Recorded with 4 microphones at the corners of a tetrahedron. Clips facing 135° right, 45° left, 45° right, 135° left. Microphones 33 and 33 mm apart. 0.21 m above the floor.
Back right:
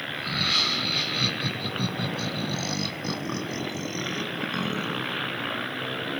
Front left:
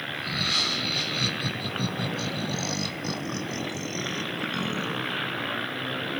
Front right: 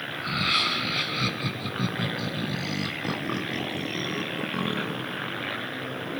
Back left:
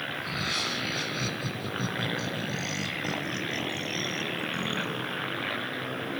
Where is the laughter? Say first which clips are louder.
Back right 2 dB, front right 9 dB; 65° right, 2 m.